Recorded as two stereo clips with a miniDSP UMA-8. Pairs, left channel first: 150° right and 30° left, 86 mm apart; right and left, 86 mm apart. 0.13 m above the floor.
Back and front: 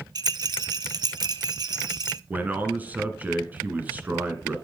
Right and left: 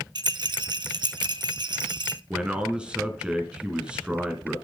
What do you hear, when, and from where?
0.1 s a rattle: 65° left, 0.6 m
2.3 s a man speaking: 35° left, 1.5 m